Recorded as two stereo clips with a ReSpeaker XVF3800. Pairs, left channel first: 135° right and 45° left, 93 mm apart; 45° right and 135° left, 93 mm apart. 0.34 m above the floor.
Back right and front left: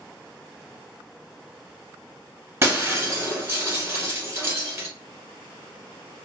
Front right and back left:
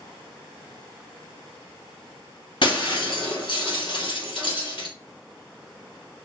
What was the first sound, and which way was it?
Breaking glass, 15° right.